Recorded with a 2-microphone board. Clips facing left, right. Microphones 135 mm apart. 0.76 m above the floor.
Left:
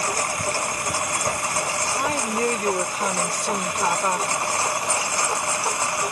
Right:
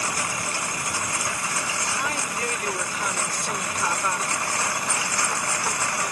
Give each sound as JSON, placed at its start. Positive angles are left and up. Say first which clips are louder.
{"t": 0.0, "sound": "a lawn mower", "louder": "left 4 dB", "side_deg": 40}
{"t": 2.0, "sound": "a woman speaking", "louder": "left 9 dB", "side_deg": 35}